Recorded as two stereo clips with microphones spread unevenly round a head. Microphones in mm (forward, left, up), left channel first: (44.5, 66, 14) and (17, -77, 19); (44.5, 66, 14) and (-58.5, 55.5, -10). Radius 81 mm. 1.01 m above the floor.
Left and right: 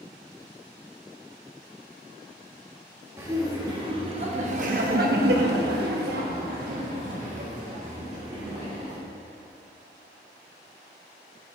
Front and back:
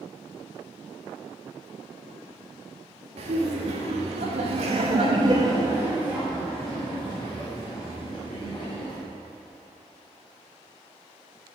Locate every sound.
3.2 s laughter: 175° right, 1.5 m; by 9.0 s 60° right, 2.5 m